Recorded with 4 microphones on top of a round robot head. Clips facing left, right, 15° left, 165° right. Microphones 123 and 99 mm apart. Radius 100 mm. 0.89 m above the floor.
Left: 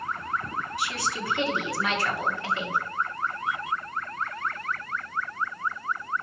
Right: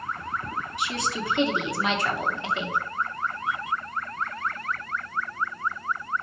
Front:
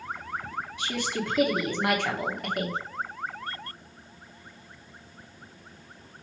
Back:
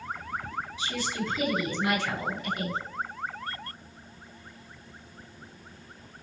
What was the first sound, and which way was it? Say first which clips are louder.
A woman speaking: right 3 dB, front 2 dB; 20° right.